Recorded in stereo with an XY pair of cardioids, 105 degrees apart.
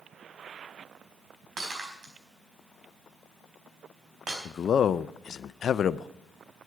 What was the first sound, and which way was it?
Breaking glass, 45° right.